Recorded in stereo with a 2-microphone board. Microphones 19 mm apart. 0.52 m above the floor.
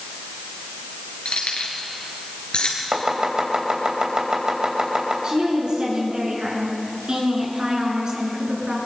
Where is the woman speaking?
50° right (ahead or behind), 7.5 m.